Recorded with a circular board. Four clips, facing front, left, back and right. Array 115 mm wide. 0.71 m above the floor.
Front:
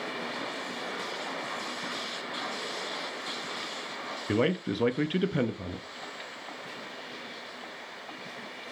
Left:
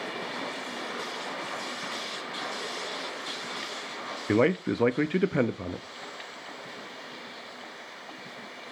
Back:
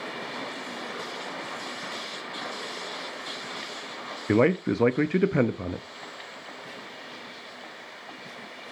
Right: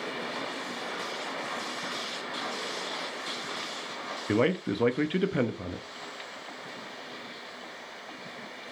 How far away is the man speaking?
About 0.6 m.